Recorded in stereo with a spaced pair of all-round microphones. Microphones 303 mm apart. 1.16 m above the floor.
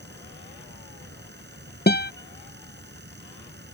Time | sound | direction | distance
0.0 | a fan | 35° right (ahead or behind) | ?
1.9 | a guitar | 35° left (ahead or behind) | ?